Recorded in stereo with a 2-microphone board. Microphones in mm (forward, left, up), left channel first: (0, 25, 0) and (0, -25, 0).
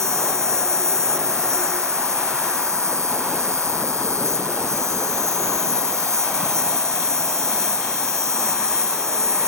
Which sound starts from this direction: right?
An insect, at 0.0 s.